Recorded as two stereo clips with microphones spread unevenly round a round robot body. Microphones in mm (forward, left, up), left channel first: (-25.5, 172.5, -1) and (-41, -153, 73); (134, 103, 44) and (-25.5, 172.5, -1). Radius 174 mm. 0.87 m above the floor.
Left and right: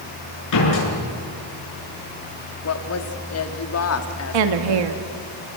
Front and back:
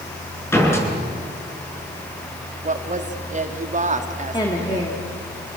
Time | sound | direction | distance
0.5 | a door slam | 50° left | 8 m
2.6 | a woman speaking | 120° left | 2 m
4.3 | a woman speaking | 105° right | 1.4 m